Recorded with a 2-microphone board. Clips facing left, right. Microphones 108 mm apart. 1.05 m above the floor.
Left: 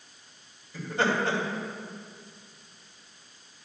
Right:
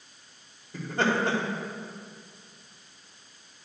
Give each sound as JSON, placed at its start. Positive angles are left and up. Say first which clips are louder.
{"t": 0.7, "sound": "laughter", "louder": "right 1 dB", "side_deg": -55, "distance_m": 2.5}